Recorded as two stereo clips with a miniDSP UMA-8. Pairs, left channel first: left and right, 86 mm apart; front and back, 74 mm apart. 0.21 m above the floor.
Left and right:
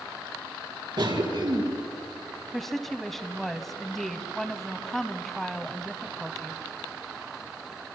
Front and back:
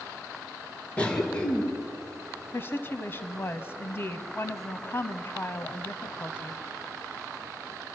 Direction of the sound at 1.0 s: 70° right.